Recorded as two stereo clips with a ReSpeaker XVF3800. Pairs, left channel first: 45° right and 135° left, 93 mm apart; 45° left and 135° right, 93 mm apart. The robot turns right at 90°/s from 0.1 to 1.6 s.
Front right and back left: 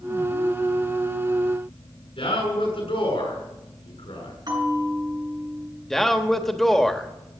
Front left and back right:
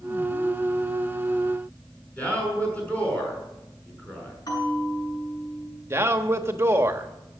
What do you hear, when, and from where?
2.2 s a man speaking: 30° right, 6.5 m
4.5 s a bell: 95° left, 7 m
5.9 s a man speaking: 130° right, 1.2 m